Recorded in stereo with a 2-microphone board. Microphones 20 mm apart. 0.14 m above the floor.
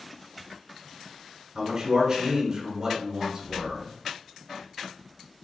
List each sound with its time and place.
1.6 s a man speaking: 25° right (ahead or behind), 1.6 m